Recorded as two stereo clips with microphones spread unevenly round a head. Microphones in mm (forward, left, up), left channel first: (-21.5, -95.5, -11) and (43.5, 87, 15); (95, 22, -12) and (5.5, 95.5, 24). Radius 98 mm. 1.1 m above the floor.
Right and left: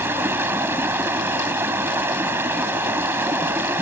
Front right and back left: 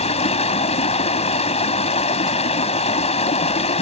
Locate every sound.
0.0 s running water: 10° right